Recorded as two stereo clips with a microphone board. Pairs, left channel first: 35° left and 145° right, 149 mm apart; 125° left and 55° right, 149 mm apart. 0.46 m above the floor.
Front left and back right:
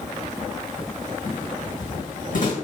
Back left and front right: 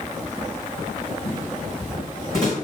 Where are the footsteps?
35° left, 1.8 m; by 2.5 s 60° left, 1.9 m.